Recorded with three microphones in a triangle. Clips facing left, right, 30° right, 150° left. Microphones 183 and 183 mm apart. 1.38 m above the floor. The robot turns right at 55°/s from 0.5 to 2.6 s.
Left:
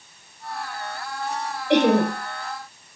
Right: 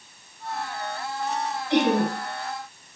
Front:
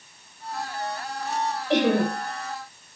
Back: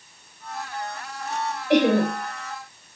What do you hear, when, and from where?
1.7 s laughter: 75° left, 4.5 m; by 2.1 s 100° left, 4.5 m